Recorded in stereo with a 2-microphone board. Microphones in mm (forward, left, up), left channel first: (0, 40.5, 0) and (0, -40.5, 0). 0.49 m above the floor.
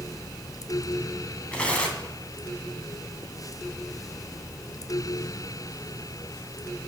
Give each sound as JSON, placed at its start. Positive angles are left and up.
{"t": 1.5, "sound": "tearing paper", "side_deg": 15, "distance_m": 2.0}